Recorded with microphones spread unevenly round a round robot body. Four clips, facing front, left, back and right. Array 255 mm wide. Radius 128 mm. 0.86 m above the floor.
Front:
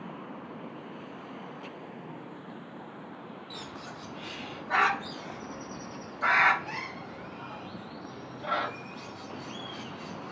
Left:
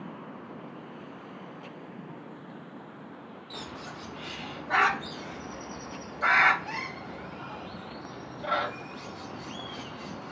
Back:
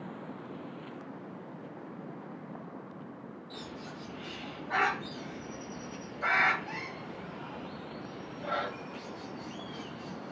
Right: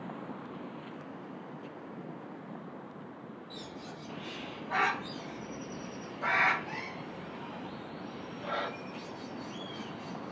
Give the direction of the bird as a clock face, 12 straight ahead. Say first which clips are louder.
Left 6 dB, even; 10 o'clock.